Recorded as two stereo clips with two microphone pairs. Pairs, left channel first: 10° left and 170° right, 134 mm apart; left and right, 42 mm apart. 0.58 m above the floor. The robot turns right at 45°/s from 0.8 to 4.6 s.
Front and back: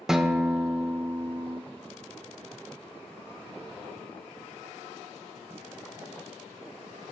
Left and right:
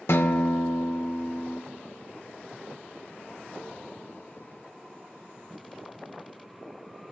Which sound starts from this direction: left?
A guitar, at 0.1 s.